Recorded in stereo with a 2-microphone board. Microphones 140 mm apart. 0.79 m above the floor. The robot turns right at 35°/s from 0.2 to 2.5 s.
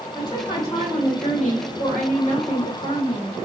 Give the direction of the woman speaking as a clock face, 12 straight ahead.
11 o'clock.